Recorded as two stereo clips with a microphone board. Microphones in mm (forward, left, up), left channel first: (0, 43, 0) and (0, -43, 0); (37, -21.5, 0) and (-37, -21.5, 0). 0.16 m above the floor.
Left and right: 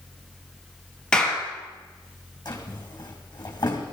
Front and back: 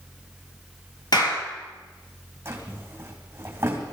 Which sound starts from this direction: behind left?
A drawer, at 2.5 s.